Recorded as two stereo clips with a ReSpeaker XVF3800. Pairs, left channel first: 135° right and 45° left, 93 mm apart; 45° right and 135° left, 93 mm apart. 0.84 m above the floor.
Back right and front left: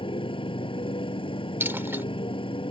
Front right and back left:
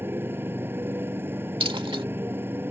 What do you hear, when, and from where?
0.0 s a motorcycle: 160° right
1.6 s a dropped coin: 110° left